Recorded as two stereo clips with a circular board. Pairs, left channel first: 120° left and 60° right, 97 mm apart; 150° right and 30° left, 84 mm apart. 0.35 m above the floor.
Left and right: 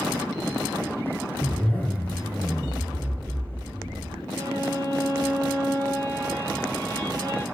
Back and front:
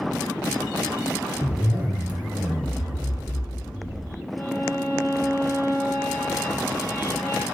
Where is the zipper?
65° left, 0.9 m.